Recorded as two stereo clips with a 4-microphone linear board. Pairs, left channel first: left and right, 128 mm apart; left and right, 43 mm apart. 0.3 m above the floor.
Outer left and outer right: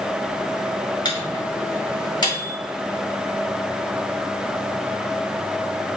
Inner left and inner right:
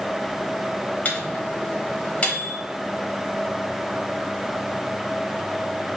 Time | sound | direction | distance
1.1 | a microwave | 35° left (ahead or behind) | 1.1 m